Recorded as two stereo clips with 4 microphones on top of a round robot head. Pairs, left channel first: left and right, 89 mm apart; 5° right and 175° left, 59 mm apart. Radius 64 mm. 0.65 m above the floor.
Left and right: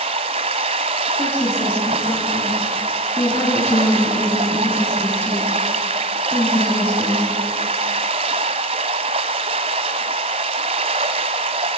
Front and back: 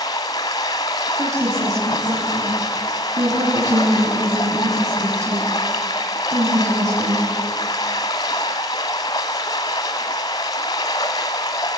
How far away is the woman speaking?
About 8.5 m.